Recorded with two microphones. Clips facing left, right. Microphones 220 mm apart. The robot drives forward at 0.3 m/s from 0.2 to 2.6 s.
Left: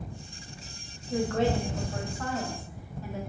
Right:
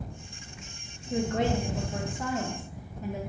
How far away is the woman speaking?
About 0.7 m.